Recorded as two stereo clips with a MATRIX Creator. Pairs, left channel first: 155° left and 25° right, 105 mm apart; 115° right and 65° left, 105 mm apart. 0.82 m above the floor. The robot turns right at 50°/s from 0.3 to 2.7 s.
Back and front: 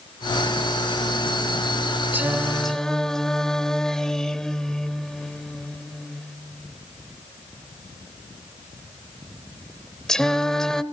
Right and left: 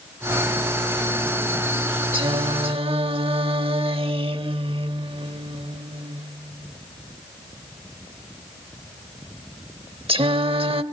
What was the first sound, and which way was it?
Singing, 45° left.